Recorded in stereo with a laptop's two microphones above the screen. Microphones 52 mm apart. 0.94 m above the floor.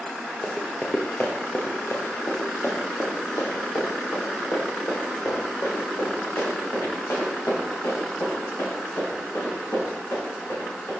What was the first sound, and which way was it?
Running footsteps, 15° left (ahead or behind).